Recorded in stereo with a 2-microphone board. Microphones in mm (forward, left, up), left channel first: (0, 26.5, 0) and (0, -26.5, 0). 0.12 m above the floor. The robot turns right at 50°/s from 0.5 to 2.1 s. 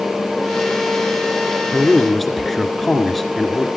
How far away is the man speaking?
About 1.7 m.